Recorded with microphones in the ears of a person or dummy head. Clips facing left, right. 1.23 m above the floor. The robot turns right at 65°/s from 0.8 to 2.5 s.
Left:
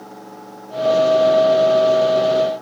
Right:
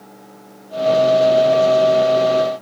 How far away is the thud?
No thud in this recording.